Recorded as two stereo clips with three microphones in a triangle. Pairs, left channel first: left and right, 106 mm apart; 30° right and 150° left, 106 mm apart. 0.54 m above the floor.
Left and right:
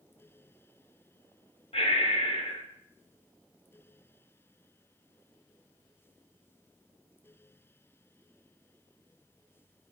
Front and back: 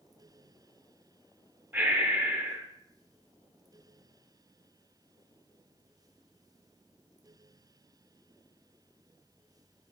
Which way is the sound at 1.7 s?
80° left.